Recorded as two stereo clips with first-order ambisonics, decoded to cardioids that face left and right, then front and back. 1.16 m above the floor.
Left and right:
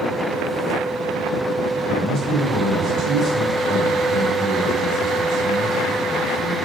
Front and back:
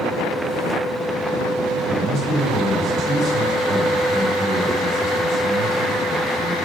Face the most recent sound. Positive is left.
turn(degrees=-125)